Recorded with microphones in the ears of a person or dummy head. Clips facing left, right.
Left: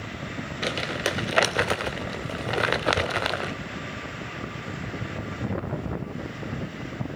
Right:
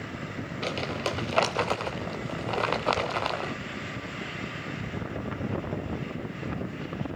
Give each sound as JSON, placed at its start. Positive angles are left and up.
{"t": 0.6, "sound": "crumpling", "side_deg": 15, "distance_m": 1.3}